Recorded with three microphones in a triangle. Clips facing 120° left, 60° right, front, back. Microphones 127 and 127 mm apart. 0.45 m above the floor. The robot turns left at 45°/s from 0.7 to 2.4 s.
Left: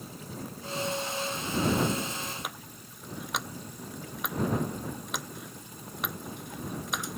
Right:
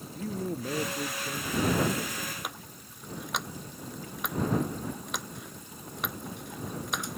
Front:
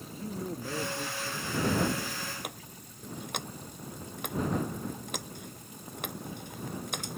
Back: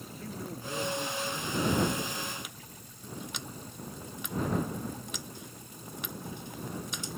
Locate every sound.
0.1 s a man speaking: 65° right; by 2.3 s 140° right
2.4 s a running tap: 30° left